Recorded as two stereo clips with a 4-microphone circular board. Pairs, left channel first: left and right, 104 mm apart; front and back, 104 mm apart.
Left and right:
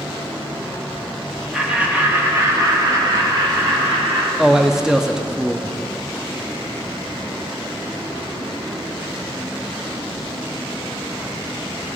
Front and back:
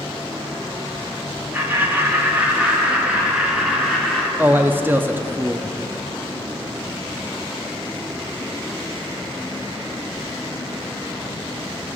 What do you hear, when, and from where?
1.5 s laughter: 165° right, 1.1 m; by 4.3 s 90° right, 1.9 m
4.4 s a man speaking: 165° right, 0.5 m